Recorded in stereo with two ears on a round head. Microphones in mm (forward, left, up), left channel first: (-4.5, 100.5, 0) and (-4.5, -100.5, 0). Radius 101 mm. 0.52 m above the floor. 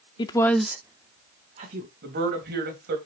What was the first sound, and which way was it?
A woman speaking, 20° left (ahead or behind).